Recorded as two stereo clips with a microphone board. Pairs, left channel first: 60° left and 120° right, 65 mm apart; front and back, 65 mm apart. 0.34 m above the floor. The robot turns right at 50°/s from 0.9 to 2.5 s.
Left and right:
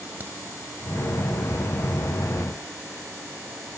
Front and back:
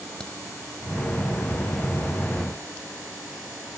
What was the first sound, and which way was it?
A crack, 75° right.